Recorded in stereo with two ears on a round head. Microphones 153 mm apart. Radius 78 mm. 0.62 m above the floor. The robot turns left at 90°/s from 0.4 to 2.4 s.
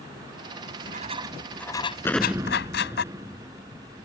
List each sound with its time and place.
0.6 s writing: 100° right; by 3.0 s 100° left
2.0 s an explosion: 15° left (ahead or behind); by 4.1 s 15° right (ahead or behind)